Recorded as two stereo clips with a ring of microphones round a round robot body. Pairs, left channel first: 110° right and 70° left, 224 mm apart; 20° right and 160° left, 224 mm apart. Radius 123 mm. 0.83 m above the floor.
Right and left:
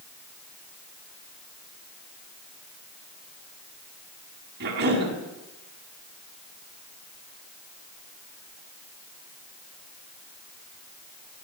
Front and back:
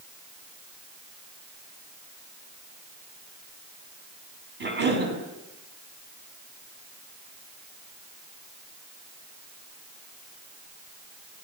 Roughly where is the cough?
Behind left.